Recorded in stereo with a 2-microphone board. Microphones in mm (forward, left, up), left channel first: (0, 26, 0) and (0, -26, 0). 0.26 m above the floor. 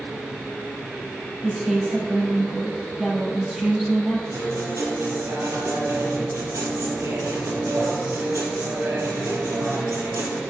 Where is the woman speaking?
15° right (ahead or behind), 5.5 m.